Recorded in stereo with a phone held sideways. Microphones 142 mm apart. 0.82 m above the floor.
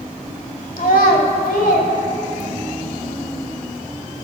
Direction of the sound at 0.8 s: 75° left (ahead or behind).